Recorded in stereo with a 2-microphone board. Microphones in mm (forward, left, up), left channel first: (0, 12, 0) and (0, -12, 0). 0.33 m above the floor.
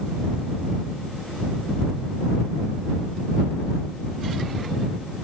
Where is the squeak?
No squeak in this recording.